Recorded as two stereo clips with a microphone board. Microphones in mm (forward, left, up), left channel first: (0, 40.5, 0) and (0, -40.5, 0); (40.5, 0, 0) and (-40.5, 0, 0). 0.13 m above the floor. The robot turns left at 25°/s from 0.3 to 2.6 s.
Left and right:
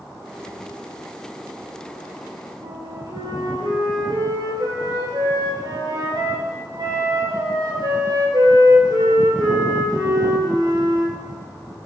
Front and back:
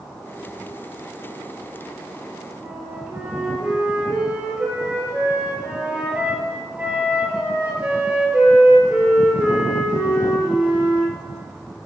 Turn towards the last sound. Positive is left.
turn(degrees=-105)